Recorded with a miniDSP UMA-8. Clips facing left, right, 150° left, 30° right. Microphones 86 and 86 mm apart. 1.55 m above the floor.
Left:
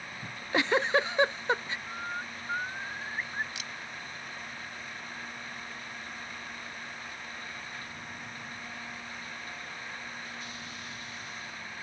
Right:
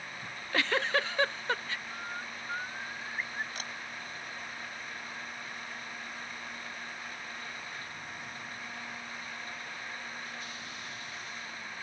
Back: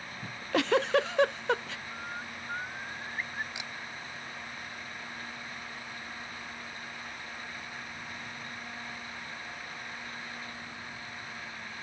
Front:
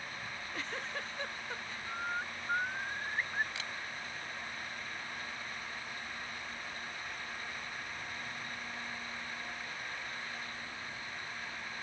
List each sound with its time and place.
0.2 s a giggle: 160° left
1.9 s a bird: 30° left
3.5 s a camera shutter: 140° right